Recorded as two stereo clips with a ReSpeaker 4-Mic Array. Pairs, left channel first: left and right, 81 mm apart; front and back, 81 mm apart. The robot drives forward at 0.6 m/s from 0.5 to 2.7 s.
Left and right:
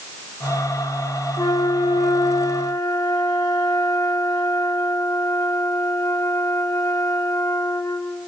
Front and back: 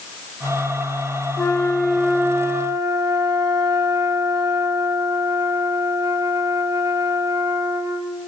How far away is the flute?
About 0.6 m.